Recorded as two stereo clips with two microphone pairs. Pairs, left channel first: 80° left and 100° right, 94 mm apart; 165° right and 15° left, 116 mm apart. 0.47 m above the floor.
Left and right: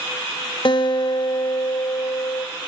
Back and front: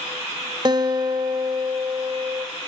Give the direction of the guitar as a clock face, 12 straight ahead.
10 o'clock.